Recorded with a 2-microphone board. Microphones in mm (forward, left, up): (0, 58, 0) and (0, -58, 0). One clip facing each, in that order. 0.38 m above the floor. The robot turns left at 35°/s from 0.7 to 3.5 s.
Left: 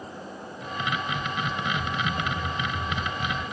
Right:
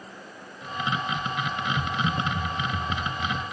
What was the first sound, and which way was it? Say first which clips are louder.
Typing on a keyboard: right 1 dB; 60° right.